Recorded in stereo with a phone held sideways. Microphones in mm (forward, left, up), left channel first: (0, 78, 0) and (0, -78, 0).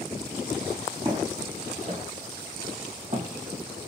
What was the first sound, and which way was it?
Footsteps, 30° right (ahead or behind).